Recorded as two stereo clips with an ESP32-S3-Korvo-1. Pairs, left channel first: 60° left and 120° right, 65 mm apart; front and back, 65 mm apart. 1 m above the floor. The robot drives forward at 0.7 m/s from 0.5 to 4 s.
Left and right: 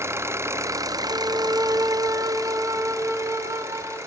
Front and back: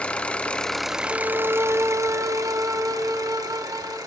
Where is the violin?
130° right, 1.1 m; by 4.0 s 165° right, 3 m.